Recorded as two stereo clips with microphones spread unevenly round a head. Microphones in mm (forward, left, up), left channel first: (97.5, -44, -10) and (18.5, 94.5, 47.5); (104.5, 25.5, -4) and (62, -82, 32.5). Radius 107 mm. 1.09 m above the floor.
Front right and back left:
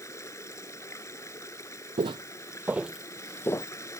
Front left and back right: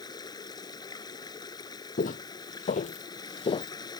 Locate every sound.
0.0 s running water: 15° left
2.0 s footsteps: 100° left; by 3.7 s 20° left